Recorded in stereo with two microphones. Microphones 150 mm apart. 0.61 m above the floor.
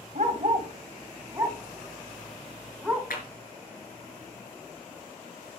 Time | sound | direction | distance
0.1 | a dog barking | 50° right (ahead or behind) | 1.1 m
3.1 | a clap | 80° left | 3.5 m